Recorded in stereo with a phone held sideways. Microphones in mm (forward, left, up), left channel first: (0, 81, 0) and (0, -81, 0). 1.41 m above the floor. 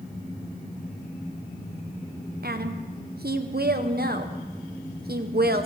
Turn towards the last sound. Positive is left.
turn(degrees=-70)  # may be behind; listen again after turning